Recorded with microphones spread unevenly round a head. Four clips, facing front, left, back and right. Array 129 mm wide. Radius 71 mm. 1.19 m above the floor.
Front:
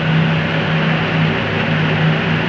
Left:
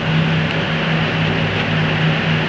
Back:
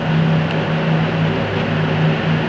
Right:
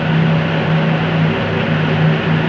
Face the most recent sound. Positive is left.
No sound to turn to.